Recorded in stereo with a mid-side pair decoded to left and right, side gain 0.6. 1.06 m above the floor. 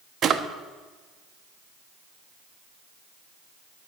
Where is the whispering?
No whispering in this recording.